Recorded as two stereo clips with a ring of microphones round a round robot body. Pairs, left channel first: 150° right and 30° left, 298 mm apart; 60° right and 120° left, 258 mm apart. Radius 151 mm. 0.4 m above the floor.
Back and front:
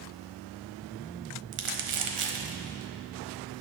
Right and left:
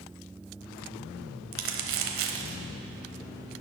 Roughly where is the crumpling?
Left.